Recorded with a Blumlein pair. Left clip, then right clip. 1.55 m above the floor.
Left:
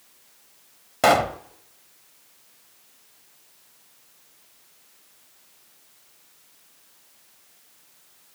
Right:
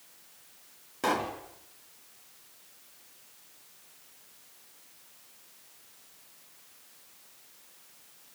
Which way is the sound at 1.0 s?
60° left.